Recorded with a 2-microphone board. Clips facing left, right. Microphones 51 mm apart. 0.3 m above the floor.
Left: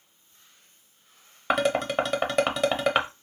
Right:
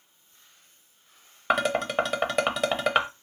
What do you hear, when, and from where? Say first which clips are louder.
1.5 s dishes clattering: left 1 dB; centre (ahead or behind), 0.7 m